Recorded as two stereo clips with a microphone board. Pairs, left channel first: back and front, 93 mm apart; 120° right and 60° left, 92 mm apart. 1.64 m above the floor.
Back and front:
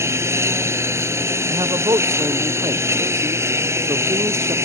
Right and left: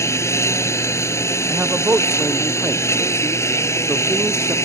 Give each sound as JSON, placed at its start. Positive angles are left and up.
{"t": 0.0, "sound": "a lawn mower", "azimuth_deg": -60}
{"t": 1.5, "sound": "a man speaking", "azimuth_deg": 0}